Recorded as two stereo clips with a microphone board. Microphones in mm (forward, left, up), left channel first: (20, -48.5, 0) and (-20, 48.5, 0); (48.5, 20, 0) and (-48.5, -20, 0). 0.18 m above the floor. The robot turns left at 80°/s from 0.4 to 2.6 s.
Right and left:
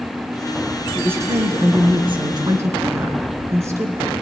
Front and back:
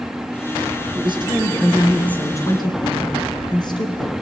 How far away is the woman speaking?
About 2.5 m.